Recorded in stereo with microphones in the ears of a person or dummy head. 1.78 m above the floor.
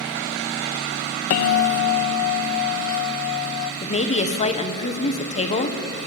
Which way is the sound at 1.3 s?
45° left (ahead or behind).